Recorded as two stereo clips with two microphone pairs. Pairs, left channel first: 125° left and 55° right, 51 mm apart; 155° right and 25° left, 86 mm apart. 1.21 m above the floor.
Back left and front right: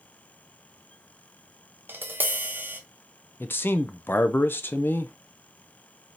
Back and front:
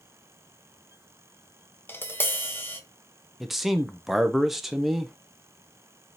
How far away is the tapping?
About 0.6 m.